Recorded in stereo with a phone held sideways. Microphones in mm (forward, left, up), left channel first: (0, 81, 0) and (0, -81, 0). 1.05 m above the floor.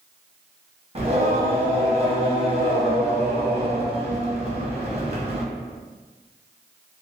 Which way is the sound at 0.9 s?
35° right (ahead or behind).